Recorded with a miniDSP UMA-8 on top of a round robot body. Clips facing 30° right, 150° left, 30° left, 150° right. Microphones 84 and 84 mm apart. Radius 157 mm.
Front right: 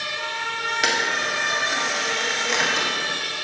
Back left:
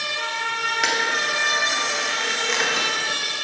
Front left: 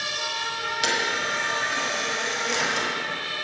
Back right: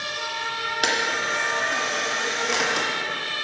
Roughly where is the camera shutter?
Behind right.